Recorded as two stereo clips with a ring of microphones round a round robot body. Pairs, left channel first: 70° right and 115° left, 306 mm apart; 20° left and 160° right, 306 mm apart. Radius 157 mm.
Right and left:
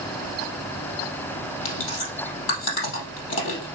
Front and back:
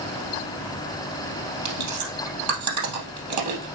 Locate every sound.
1.6 s chewing: 120° right, 3 m